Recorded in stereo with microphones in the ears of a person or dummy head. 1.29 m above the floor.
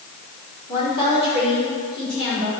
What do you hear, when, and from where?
0.7 s a woman speaking: 25° left (ahead or behind), 3 m